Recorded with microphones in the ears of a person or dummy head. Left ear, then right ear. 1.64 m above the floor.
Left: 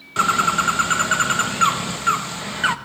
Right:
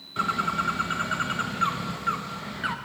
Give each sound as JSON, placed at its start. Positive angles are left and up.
{"t": 0.2, "sound": "a bird", "side_deg": 30, "distance_m": 1.1}